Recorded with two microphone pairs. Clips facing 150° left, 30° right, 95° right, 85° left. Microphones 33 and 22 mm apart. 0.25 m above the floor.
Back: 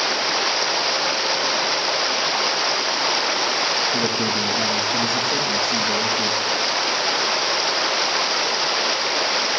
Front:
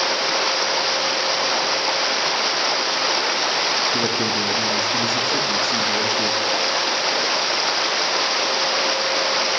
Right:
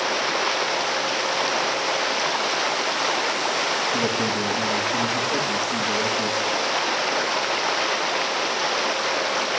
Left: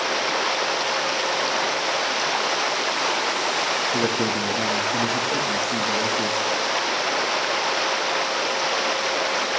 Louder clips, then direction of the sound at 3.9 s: Even, even; 70° left.